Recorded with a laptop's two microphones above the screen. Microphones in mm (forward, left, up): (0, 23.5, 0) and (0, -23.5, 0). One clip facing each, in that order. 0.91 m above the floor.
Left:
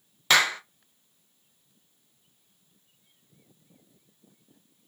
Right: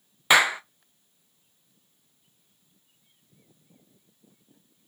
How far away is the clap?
About 0.7 m.